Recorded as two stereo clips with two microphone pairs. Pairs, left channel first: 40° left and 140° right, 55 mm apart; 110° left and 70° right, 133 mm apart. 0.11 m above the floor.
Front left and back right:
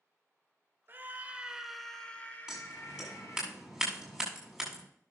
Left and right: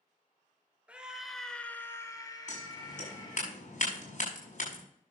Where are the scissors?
135° left, 6.5 m.